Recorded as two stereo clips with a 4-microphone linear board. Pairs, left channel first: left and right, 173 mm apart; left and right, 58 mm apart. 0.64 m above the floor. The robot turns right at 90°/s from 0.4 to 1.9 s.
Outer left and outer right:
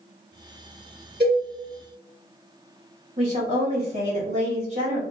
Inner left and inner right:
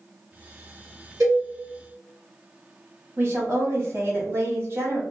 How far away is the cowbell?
About 1.3 m.